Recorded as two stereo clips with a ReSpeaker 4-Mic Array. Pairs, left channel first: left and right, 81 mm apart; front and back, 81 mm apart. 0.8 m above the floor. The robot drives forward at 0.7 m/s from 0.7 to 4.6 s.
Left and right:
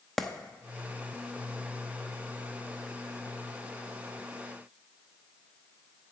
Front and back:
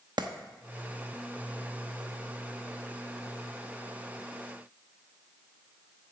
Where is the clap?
Straight behind, 0.8 m.